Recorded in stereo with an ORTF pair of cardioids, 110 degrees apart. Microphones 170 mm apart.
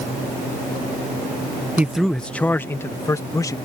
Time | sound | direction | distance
1.8 | a man speaking | 10° right | ?